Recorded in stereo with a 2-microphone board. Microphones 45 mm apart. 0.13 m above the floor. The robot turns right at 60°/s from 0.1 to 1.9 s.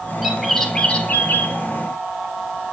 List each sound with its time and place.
0.2 s a bird: 10° right, 0.8 m; by 1.6 s 70° left, 0.8 m